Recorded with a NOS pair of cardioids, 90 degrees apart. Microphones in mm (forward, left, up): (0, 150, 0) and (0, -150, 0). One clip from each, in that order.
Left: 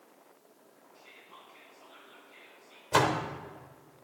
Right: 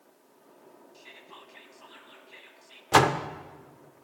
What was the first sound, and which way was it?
Whispering, 50° right.